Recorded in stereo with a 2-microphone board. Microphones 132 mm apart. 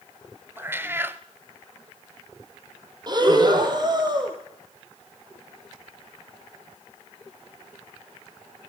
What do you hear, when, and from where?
0.6 s a cat meowing: 15° right (ahead or behind), 0.8 m
3.1 s breathing: 35° right (ahead or behind), 3 m